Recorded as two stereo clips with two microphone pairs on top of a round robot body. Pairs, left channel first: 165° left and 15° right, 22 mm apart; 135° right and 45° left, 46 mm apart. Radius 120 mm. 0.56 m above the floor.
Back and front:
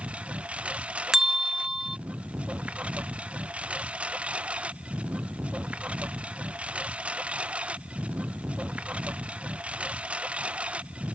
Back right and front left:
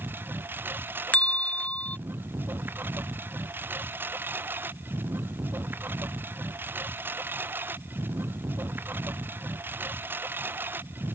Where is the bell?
75° right.